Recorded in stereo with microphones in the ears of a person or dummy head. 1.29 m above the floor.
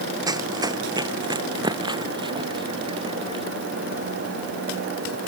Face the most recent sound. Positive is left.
turn(degrees=-35)  # may be behind; listen again after turning